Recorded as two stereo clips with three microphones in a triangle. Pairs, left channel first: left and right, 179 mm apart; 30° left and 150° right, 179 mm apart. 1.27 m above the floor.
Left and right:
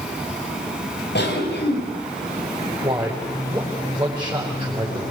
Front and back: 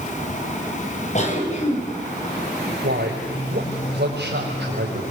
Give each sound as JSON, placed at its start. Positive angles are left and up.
{"t": 1.1, "sound": "a cough", "azimuth_deg": 80, "distance_m": 6.0}
{"t": 2.8, "sound": "a man speaking", "azimuth_deg": -155, "distance_m": 5.0}